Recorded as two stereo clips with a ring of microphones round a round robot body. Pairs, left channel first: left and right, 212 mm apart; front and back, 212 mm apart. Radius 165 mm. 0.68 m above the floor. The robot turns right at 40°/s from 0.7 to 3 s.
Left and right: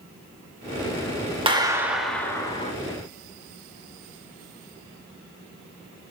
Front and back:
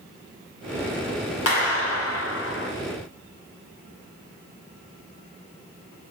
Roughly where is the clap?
Ahead right.